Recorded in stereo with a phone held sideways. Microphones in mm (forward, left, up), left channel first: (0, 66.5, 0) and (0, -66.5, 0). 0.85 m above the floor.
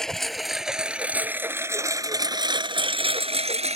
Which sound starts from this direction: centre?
A lawn mower, at 0.0 s.